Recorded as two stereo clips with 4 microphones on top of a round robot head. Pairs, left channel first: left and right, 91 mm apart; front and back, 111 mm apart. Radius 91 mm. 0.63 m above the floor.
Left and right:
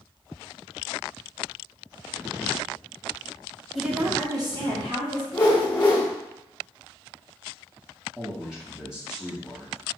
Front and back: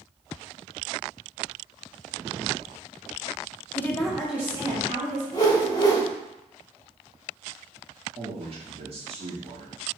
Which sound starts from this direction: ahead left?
A whoosh, at 5.3 s.